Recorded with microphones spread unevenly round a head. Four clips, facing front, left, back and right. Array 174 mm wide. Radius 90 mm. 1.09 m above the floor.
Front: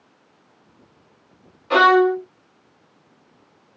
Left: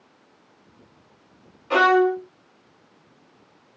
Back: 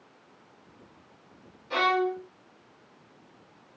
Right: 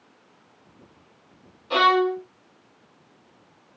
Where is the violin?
15° left, 0.5 m.